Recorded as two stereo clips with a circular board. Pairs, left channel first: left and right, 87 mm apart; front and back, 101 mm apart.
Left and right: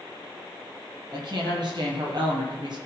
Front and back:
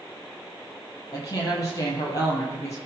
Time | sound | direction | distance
1.1 | a woman speaking | 50° right | 8 m